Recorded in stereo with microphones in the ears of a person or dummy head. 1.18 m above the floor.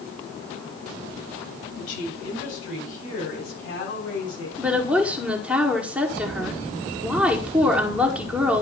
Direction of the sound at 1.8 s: 70° left (ahead or behind).